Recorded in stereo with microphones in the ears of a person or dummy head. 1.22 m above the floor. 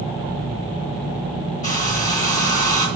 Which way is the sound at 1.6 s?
35° left (ahead or behind).